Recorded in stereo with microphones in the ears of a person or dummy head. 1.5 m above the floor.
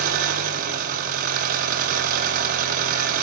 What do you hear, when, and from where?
0.0 s an engine running: 50° right (ahead or behind), 0.8 m